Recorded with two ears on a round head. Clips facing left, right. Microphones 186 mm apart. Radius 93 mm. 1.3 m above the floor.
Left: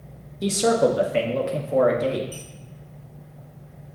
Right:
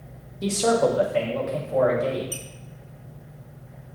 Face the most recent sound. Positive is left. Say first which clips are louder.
# right 1 dB
turn(degrees=-60)  # may be behind; listen again after turning